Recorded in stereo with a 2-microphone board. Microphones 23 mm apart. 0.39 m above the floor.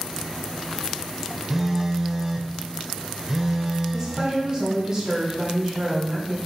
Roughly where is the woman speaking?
Right.